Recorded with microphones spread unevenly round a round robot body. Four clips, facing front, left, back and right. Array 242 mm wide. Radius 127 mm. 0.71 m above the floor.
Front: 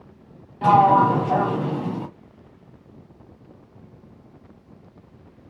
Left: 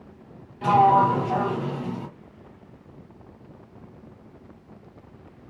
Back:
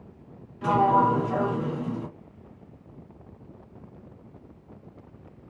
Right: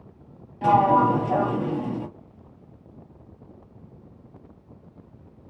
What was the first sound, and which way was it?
A sliding door, 15° right.